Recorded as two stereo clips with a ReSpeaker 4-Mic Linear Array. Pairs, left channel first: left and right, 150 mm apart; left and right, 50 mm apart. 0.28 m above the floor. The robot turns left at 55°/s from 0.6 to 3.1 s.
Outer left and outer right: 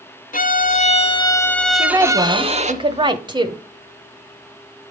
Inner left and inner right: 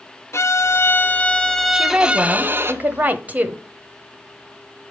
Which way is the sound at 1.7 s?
35° right.